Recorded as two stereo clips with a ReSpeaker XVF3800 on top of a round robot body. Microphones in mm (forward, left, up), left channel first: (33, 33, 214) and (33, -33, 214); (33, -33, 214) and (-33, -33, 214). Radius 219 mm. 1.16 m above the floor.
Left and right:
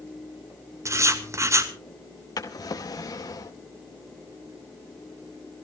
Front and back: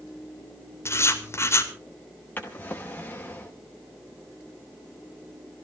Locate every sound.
0.8 s writing: 45° right, 2.5 m
2.4 s a drawer: 65° left, 0.8 m